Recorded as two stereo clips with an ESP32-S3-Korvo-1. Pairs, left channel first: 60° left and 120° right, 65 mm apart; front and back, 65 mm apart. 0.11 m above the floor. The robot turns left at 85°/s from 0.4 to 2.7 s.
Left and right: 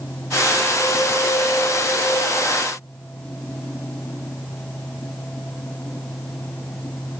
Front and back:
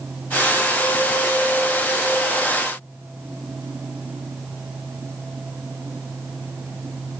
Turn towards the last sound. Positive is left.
No sound to turn to.